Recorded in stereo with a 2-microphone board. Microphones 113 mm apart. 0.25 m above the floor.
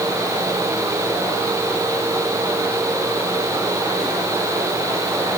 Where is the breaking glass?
I don't hear breaking glass.